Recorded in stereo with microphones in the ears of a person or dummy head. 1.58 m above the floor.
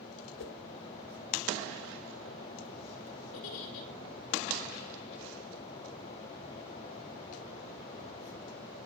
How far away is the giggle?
About 5 m.